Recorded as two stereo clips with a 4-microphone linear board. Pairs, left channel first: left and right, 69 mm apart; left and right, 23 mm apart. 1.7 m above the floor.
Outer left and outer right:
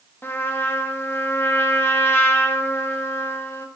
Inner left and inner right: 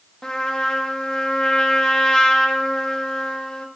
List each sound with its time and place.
0.2 s a trumpet: 35° left (ahead or behind), 1.2 m